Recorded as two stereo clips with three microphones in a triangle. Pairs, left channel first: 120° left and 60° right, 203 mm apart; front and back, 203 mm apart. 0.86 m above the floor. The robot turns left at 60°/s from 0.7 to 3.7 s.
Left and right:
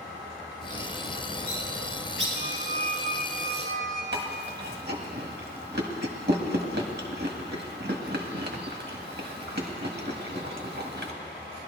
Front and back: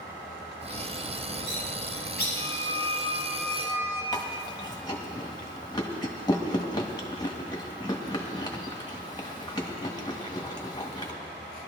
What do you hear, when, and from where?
0.6 s a bird: 55° left, 4 m; by 2.2 s 40° right, 4 m
2.4 s a squeak: 20° right, 2 m; by 4.0 s 100° right, 2 m
4.1 s chewing: 65° right, 1.6 m